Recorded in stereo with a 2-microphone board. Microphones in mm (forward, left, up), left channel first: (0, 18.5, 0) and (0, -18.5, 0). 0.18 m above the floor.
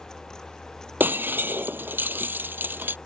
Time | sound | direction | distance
1.0 | breaking glass | 55° right (ahead or behind) | ?